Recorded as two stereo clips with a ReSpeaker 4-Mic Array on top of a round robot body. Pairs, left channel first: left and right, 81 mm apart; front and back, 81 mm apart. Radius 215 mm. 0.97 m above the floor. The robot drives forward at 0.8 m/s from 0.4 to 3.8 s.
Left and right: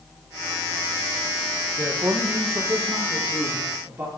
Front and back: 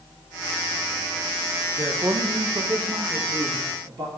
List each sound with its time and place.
1.8 s a man speaking: 130° right, 1.3 m; by 4.1 s 160° right, 2.5 m